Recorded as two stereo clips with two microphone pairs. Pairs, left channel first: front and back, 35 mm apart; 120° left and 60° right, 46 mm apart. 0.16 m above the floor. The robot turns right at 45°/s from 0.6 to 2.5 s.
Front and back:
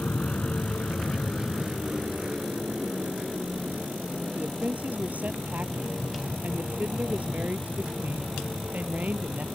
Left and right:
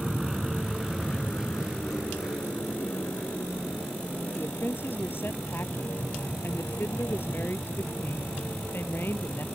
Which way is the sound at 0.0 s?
30° left.